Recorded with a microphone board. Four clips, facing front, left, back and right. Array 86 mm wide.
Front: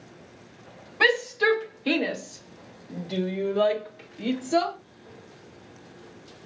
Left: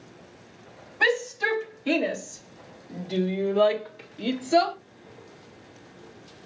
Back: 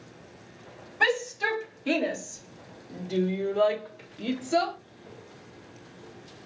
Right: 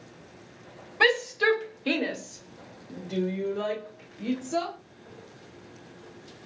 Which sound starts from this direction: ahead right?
A shout, at 1.0 s.